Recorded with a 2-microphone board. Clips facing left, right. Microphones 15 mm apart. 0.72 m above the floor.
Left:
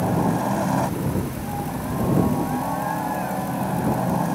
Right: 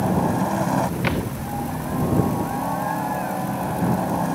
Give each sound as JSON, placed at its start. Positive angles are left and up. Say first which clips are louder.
{"t": 0.0, "sound": "a helicopter", "louder": "right 1 dB", "side_deg": 5}
{"t": 1.0, "sound": "a thud", "louder": "right 2 dB", "side_deg": -65}